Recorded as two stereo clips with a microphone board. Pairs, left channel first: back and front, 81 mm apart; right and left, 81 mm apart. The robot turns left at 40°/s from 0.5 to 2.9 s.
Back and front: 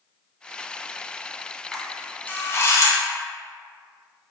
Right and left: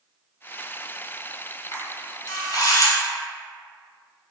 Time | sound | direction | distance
1.7 | a camera shutter | 90° right | 0.6 m